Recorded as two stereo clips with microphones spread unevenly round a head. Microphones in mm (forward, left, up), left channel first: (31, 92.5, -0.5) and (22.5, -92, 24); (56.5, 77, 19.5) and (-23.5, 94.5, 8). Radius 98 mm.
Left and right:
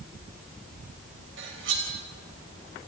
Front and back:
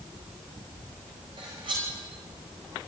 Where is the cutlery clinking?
130° right, 4.5 m.